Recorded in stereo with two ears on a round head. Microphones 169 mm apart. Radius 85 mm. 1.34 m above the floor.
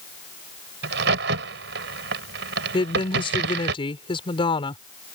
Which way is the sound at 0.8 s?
75° right (ahead or behind).